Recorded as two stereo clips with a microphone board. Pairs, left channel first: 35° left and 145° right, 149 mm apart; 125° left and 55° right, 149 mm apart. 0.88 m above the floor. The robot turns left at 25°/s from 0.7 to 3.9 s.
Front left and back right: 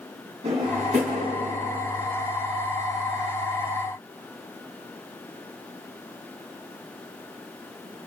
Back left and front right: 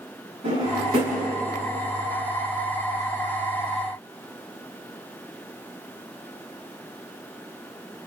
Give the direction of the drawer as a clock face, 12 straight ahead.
3 o'clock.